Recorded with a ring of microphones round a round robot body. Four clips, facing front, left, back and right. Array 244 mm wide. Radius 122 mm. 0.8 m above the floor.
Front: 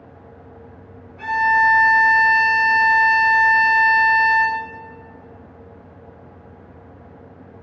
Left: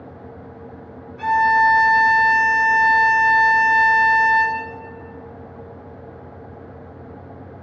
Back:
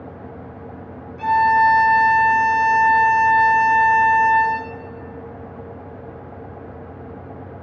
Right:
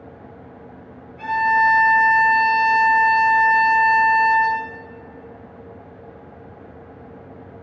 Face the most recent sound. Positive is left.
turn(degrees=90)